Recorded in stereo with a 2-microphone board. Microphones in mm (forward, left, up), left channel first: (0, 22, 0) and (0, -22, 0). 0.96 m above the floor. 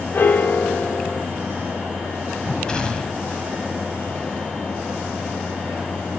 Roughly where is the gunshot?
Centre.